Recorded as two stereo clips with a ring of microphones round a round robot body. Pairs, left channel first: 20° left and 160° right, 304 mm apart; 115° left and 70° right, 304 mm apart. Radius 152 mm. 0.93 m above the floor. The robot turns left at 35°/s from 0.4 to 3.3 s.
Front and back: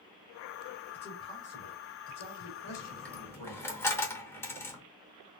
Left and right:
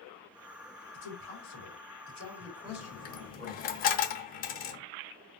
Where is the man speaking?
105° left, 2.5 m; by 3.7 s 25° left, 2.5 m.